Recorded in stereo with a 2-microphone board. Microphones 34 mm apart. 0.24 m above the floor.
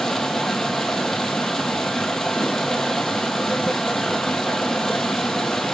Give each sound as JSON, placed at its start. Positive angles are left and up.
{"t": 0.0, "sound": "running water", "side_deg": 10, "distance_m": 1.3}